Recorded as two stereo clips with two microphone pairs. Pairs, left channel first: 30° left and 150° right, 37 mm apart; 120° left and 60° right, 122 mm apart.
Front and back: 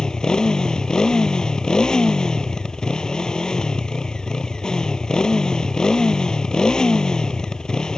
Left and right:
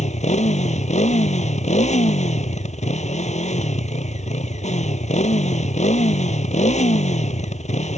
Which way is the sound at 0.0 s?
100° left.